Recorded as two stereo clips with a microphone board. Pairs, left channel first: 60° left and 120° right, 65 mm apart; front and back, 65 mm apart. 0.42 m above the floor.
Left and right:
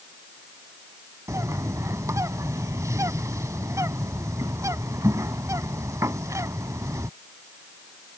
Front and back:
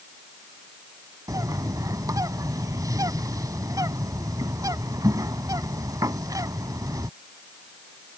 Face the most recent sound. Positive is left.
turn(degrees=-155)